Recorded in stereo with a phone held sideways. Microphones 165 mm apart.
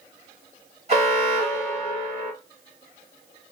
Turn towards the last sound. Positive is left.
turn(degrees=-45)  # may be behind; listen again after turning